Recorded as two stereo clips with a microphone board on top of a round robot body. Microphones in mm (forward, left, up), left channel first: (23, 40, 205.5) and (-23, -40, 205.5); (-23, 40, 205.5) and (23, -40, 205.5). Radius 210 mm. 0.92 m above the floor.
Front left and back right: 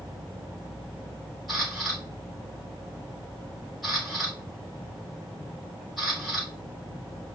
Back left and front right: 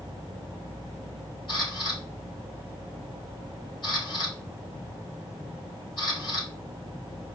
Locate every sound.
1.5 s a camera shutter: 150° left, 4 m